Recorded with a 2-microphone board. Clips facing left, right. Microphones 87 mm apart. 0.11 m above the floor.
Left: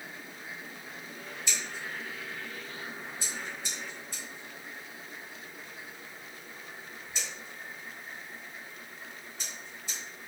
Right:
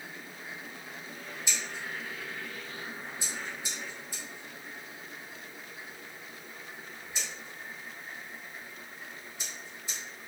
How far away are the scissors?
About 1.7 m.